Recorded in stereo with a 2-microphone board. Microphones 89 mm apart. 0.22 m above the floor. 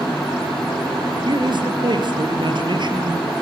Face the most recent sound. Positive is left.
turn(degrees=-60)  # may be behind; listen again after turning